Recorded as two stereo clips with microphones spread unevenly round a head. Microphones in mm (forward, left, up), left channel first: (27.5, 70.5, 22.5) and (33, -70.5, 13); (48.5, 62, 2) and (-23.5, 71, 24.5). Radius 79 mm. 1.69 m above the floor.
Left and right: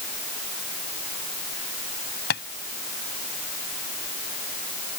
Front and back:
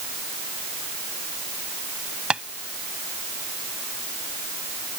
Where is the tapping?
100° left.